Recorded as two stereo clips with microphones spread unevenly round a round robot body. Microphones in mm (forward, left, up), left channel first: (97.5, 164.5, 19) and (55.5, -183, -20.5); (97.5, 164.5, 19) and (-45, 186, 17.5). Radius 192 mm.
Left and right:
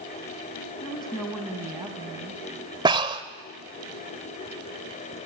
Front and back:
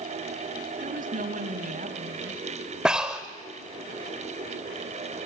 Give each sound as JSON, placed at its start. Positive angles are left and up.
{"t": 0.8, "sound": "a woman speaking", "azimuth_deg": 160, "distance_m": 2.0}
{"t": 2.9, "sound": "breathing", "azimuth_deg": -115, "distance_m": 0.7}